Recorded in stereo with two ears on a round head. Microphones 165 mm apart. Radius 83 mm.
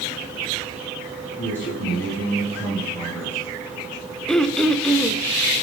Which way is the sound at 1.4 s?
10° left (ahead or behind).